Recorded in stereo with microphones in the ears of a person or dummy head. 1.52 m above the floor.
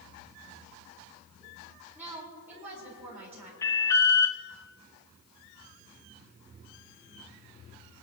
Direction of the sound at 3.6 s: 20° left (ahead or behind).